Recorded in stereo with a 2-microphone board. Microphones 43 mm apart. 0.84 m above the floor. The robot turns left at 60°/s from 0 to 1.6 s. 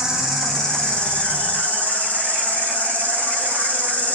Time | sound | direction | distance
0.0 | an insect | 160° right | 0.9 m